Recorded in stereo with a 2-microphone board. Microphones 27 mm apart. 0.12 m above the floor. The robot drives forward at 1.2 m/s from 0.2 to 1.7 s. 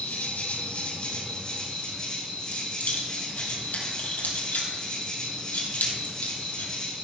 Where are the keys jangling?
70° left (ahead or behind), 2.5 m.